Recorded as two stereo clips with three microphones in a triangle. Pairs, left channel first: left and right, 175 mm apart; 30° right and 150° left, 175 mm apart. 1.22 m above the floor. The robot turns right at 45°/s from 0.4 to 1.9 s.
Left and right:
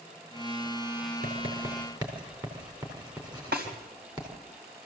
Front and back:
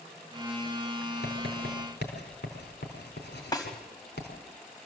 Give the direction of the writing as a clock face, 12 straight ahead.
2 o'clock.